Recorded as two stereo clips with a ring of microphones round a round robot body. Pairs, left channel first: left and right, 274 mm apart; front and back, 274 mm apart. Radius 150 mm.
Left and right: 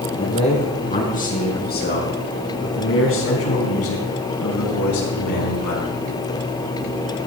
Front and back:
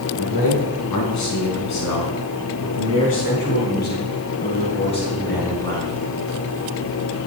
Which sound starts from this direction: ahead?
A man speaking, at 0.2 s.